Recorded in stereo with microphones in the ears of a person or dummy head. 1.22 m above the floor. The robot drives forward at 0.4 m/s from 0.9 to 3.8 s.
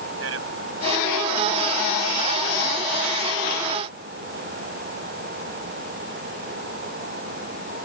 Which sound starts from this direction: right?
A man speaking, at 0.2 s.